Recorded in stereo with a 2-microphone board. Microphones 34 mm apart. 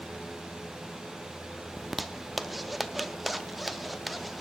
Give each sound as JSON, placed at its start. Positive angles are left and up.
{"t": 1.8, "sound": "a zipper", "side_deg": -5, "distance_m": 0.6}